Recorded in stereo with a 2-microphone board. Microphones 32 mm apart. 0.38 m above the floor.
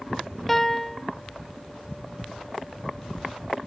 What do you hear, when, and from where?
0.5 s a piano: 5° left (ahead or behind)